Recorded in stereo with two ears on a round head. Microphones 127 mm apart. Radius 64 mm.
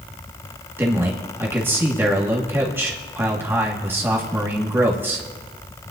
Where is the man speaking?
15° right (ahead or behind), 1.6 m.